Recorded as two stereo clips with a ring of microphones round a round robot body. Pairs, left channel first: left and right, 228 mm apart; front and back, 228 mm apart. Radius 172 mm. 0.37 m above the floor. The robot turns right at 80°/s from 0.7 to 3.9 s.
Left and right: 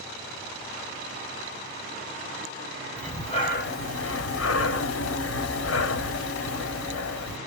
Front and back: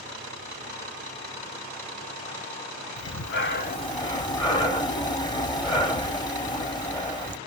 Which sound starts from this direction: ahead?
Breathing, at 3.0 s.